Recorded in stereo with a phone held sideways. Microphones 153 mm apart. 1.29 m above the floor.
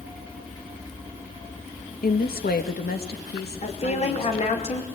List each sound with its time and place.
2.0 s a woman speaking: 80° left, 1.7 m; by 4.6 s 85° left, 4 m
3.6 s a woman speaking: 45° left (ahead or behind), 5 m